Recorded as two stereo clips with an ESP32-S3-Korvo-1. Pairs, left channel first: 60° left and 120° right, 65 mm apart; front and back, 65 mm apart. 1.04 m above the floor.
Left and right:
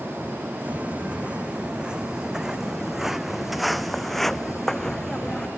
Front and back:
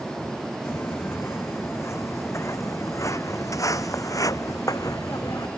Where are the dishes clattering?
I don't hear dishes clattering.